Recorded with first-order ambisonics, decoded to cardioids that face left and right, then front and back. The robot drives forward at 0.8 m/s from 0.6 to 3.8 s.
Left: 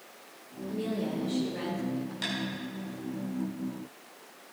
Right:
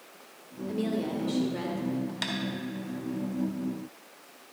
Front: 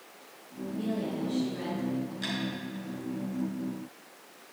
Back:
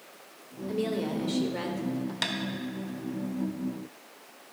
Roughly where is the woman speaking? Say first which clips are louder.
Right 2 dB, back 4 dB; behind right.